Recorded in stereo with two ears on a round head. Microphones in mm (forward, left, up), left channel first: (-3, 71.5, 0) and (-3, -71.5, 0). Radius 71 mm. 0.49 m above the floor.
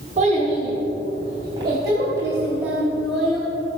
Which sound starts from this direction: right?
A child speaking, at 0.2 s.